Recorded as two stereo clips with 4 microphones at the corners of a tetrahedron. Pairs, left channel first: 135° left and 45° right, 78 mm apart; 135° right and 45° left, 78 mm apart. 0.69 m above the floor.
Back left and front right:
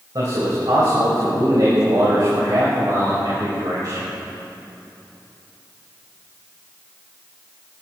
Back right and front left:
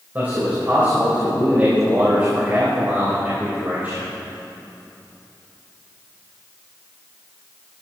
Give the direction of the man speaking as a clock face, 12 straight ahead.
1 o'clock.